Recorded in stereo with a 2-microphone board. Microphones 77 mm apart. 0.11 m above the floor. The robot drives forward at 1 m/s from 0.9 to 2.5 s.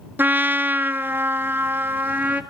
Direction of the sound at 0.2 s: 25° right (ahead or behind).